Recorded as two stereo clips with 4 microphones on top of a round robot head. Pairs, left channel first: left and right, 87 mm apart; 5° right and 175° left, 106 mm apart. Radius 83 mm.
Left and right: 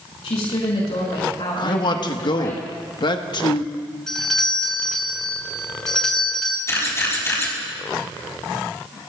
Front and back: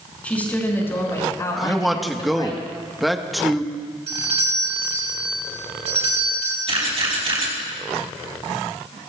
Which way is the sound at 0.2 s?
70° left.